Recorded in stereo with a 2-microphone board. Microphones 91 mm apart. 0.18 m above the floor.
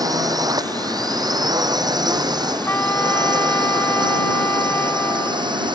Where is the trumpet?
25° left (ahead or behind).